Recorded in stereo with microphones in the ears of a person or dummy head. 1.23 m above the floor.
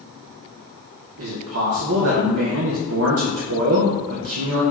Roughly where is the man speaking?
Right.